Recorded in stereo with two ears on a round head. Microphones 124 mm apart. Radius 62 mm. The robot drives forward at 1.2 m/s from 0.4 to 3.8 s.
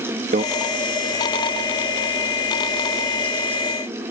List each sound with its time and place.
0.3 s a microwave: 55° right (ahead or behind)